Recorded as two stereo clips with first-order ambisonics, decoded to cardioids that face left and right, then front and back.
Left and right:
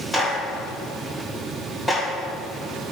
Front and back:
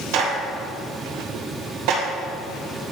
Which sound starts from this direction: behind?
A clap, at 0.1 s.